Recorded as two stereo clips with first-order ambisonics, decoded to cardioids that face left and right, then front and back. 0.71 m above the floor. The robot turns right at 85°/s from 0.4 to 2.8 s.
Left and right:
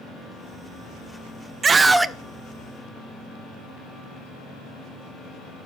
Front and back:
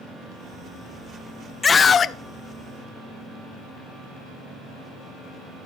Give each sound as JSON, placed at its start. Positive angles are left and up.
{"t": 1.6, "sound": "a scream", "azimuth_deg": -50, "distance_m": 0.5}